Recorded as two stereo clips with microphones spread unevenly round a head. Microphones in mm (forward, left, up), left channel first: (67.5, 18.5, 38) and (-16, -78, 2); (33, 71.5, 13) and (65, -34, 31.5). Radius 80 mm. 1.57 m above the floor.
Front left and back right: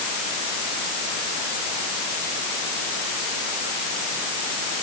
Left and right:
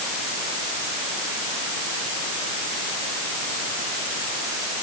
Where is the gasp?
No gasp in this recording.